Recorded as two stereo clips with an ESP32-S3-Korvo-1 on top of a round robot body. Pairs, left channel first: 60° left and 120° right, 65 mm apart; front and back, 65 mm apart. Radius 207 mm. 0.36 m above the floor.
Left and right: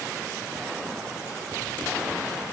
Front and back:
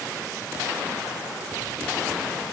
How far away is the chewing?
I don't hear chewing.